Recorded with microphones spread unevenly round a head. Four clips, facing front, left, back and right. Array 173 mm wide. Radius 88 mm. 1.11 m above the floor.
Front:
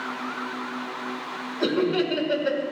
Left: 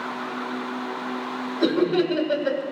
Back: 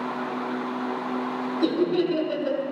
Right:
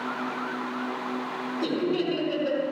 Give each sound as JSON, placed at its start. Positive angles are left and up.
{"t": 1.6, "sound": "laughter", "azimuth_deg": 50, "distance_m": 4.5}